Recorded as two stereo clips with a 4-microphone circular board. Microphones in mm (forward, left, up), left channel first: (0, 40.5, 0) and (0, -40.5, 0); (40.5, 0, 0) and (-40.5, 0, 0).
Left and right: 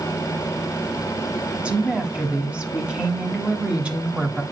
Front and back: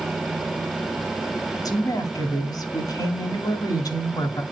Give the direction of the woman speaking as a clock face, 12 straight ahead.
1 o'clock.